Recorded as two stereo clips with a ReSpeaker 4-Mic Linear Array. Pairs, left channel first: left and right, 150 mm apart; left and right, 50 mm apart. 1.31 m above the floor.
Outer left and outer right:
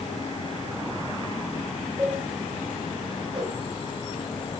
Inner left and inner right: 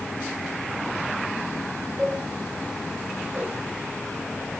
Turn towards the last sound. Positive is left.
turn(degrees=-35)  # may be behind; listen again after turning